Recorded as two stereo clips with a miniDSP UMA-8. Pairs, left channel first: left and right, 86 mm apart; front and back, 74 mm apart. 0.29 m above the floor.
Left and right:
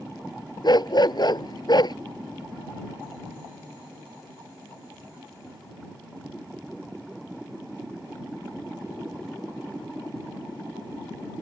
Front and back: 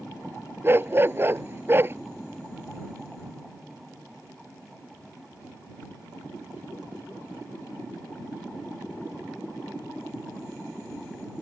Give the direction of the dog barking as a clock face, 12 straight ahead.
8 o'clock.